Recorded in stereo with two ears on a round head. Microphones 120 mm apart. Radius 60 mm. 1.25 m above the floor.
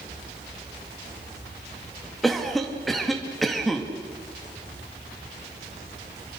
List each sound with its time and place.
2.2 s a cough: centre (ahead or behind), 2 m